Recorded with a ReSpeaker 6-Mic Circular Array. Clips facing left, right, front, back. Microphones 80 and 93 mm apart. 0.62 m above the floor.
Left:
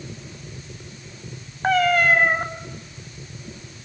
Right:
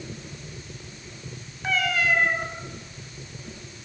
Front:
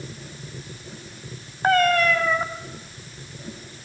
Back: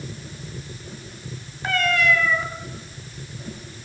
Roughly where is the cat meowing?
Ahead left.